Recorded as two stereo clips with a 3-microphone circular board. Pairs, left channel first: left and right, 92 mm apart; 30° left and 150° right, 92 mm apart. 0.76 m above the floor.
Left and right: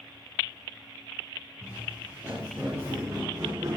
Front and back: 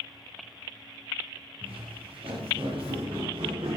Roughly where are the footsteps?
Behind.